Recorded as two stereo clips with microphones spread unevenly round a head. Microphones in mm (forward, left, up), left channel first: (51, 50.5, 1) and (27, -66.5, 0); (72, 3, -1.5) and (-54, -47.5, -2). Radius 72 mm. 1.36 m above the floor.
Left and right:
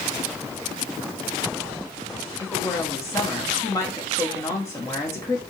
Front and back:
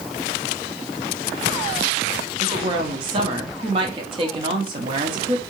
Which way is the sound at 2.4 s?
150° left.